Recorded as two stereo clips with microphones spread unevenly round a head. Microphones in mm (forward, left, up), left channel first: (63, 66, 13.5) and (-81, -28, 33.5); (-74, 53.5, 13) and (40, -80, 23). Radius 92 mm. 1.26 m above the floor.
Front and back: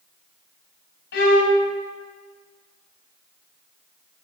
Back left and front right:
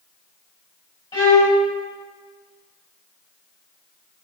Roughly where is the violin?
Ahead left.